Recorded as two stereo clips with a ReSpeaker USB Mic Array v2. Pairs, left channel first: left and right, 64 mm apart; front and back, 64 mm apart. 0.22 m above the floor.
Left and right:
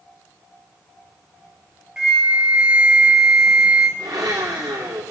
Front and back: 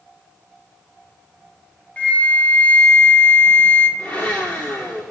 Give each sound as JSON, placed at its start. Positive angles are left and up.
{"t": 2.0, "sound": "a flute", "azimuth_deg": -25, "distance_m": 1.3}
{"t": 4.0, "sound": "a blender", "azimuth_deg": -70, "distance_m": 5.0}